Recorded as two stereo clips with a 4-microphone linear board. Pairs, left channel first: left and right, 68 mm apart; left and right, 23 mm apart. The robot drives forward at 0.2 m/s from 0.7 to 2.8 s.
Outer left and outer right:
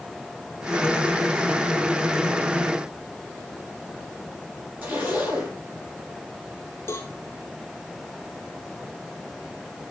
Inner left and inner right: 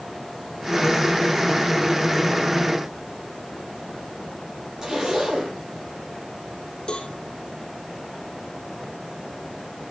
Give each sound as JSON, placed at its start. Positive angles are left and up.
{"t": 4.8, "sound": "a zipper", "side_deg": -30, "distance_m": 5.0}
{"t": 6.9, "sound": "a cowbell", "side_deg": 35, "distance_m": 2.5}